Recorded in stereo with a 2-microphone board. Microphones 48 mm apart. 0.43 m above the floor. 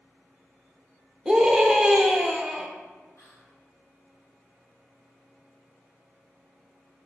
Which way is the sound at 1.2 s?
10° right (ahead or behind).